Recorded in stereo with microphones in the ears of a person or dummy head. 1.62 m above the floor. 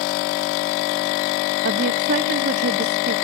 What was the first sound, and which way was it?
A woman speaking, 50° right (ahead or behind).